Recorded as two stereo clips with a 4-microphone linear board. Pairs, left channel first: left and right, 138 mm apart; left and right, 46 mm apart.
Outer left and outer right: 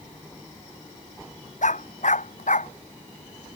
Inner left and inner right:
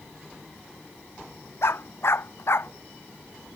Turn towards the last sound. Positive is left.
turn(degrees=65)  # may be behind; listen again after turning